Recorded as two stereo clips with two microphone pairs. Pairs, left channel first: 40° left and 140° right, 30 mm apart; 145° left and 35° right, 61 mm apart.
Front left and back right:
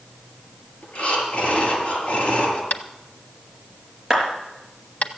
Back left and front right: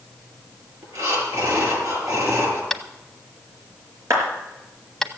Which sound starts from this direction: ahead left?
Tapping, at 2.7 s.